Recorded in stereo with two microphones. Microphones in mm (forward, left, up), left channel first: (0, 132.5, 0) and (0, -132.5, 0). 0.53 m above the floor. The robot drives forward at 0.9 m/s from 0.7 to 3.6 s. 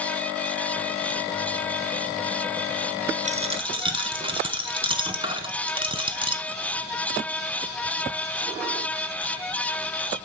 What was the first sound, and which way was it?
A dropped coin, 30° right (ahead or behind).